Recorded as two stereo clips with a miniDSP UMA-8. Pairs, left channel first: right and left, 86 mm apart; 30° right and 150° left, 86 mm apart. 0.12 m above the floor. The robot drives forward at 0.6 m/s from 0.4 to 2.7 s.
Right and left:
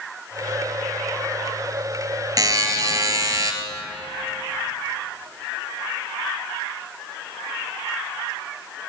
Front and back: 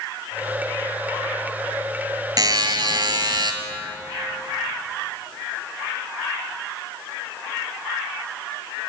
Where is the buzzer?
125° left, 1.5 m; by 3.5 s 130° left, 1.6 m.